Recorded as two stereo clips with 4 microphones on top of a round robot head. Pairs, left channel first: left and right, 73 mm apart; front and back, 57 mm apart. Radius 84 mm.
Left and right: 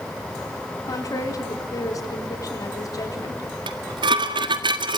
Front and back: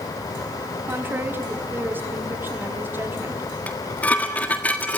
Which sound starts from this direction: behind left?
A woman speaking, at 0.9 s.